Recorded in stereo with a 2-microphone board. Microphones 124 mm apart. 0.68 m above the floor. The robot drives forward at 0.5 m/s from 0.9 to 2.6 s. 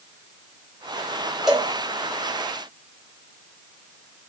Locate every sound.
1.5 s a cowbell: centre (ahead or behind), 1.0 m